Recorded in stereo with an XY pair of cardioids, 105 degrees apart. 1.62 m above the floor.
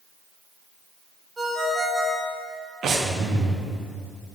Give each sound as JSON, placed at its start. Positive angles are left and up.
{"t": 1.4, "sound": "a ringtone", "azimuth_deg": -25, "distance_m": 3.0}
{"t": 2.8, "sound": "breathing", "azimuth_deg": -60, "distance_m": 1.1}